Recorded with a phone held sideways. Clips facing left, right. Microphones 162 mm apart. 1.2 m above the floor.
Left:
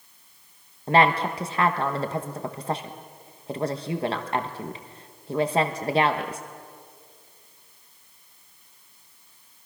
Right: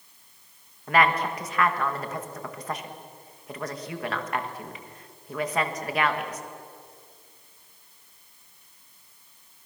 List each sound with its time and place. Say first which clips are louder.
0.9 s a woman speaking: left 3 dB; 30° left (ahead or behind), 1.4 m